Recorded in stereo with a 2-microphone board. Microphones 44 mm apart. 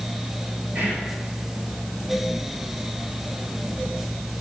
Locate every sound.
0.8 s whispering: 55° right (ahead or behind), 2.5 m